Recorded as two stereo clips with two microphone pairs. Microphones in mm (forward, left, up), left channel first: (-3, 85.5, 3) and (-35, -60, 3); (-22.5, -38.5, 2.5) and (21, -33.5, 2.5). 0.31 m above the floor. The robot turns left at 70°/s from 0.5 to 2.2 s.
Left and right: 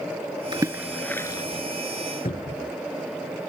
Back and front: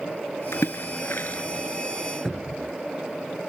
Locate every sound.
0.5 s a splash: 160° right; by 1.6 s 120° left
2.2 s a cupboard door: 100° left